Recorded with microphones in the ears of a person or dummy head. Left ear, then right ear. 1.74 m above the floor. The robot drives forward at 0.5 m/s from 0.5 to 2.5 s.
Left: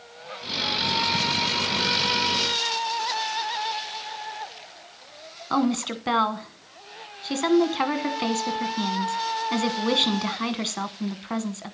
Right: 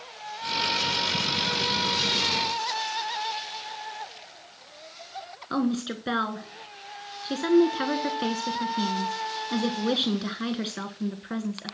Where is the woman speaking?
20° left (ahead or behind), 1.0 m.